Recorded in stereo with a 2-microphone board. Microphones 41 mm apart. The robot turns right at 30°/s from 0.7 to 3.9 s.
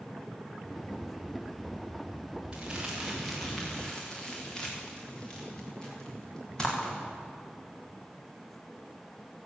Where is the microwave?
No microwave in this recording.